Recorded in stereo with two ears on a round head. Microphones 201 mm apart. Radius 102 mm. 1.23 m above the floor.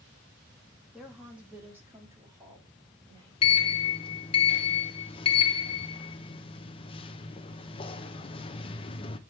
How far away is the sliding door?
About 0.6 m.